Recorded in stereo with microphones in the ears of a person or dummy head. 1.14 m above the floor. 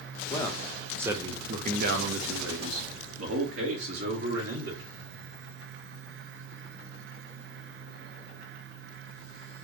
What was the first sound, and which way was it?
A man speaking, 15° left (ahead or behind).